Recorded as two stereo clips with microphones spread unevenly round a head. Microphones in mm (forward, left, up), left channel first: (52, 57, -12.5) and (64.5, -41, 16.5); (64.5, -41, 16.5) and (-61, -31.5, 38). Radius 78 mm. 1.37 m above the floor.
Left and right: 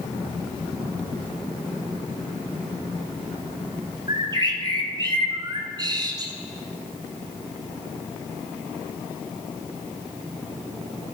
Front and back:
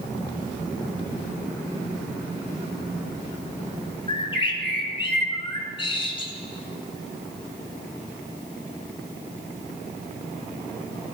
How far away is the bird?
About 3 m.